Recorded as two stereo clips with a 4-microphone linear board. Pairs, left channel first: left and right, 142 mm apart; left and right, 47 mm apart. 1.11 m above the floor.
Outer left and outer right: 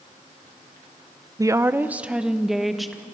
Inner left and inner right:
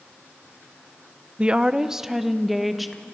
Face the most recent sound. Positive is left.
turn(degrees=0)  # may be behind; listen again after turning